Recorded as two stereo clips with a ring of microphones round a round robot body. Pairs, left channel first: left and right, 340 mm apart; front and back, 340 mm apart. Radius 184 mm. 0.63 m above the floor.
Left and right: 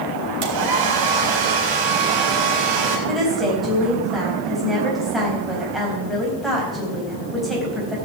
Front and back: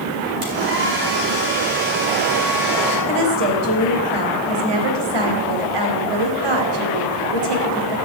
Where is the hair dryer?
115° right, 4 m.